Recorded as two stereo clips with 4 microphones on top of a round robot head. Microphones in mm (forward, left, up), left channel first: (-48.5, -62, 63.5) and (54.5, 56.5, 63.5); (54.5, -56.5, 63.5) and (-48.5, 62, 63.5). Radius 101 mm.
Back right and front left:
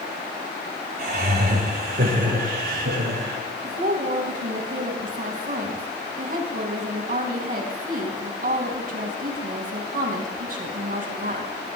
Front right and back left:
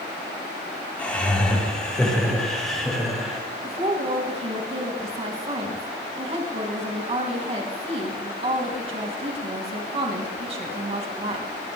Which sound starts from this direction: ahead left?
Laughter, at 1.0 s.